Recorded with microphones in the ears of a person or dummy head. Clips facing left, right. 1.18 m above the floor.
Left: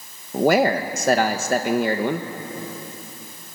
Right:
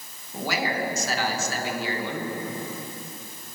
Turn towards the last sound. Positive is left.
turn(degrees=40)  # may be behind; listen again after turning